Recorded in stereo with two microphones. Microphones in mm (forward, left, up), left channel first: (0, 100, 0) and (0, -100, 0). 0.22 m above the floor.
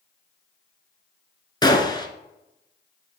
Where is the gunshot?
20° left (ahead or behind), 1.0 m.